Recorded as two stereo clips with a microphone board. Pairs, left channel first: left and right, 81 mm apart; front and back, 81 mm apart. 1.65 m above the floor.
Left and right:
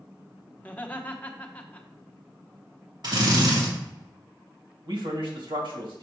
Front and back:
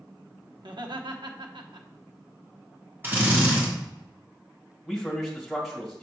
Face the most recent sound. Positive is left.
turn(degrees=-90)